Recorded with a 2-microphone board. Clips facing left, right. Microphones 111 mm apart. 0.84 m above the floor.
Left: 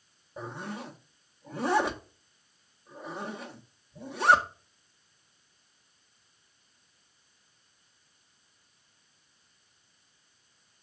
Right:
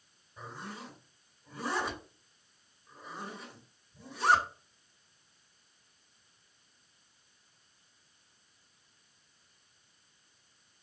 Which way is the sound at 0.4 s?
65° left (ahead or behind).